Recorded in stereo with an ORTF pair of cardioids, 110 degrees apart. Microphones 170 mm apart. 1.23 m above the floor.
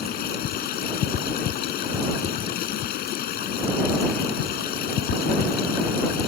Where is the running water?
70° left.